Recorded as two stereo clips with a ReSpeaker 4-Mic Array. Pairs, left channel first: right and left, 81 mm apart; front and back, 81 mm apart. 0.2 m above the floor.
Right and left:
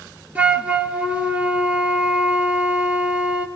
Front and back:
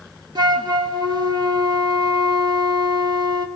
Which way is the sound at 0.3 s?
160° left.